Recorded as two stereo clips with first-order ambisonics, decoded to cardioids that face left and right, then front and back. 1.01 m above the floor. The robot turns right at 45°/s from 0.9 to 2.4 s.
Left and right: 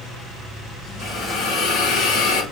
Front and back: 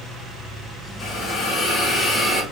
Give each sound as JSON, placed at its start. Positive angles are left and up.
{"t": 1.0, "sound": "a hiss", "azimuth_deg": 30, "distance_m": 3.5}